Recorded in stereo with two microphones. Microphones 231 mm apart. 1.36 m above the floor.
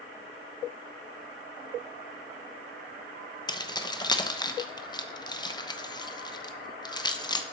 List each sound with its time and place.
3.5 s keys jangling: 20° left (ahead or behind), 0.8 m